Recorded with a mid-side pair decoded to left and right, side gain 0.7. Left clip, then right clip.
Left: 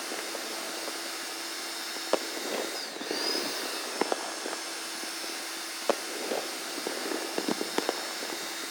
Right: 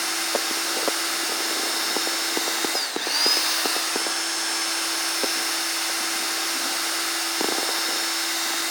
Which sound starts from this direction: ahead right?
A machine running, at 0.0 s.